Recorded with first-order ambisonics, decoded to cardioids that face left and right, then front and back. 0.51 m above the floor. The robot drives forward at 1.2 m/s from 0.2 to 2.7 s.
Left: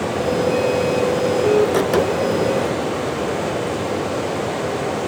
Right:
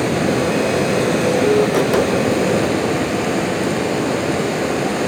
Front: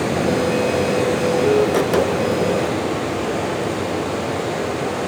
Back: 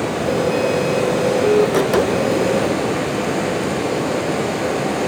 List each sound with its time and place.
0.0 s running water: 75° right, 5 m; by 5.1 s 110° right, 5.5 m